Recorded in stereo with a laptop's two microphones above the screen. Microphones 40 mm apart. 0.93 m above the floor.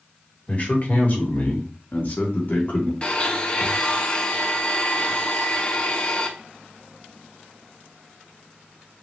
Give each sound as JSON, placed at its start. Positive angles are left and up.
{"t": 0.5, "sound": "a man speaking", "side_deg": 45, "distance_m": 1.7}
{"t": 3.0, "sound": "a blender", "side_deg": 25, "distance_m": 0.8}